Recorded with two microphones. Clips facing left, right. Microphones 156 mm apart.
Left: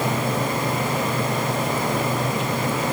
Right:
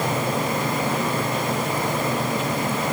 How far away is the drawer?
I don't hear a drawer.